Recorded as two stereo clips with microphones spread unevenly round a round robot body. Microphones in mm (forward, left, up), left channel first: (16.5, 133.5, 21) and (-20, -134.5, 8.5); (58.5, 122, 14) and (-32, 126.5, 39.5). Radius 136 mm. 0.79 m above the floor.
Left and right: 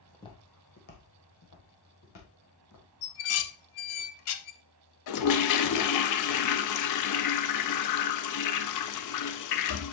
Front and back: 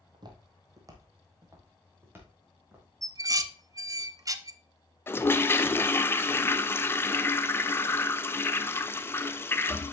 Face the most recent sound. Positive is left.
turn(degrees=60)